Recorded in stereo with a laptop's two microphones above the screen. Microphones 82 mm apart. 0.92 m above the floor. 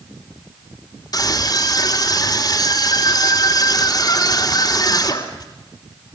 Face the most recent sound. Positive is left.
turn(degrees=55)  # may be behind; listen again after turning